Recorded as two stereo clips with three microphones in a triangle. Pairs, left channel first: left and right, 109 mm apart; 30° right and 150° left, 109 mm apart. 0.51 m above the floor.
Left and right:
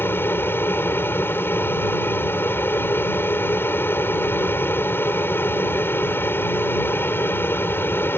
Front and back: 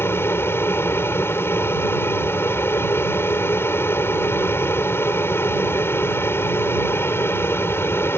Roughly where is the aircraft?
Ahead left.